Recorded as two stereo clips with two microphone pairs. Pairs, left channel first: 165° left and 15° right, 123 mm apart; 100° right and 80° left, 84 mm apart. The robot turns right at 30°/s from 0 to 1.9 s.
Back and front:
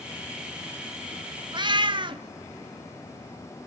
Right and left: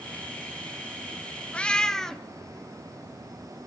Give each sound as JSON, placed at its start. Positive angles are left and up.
{"t": 1.5, "sound": "a cat meowing", "azimuth_deg": -30, "distance_m": 0.7}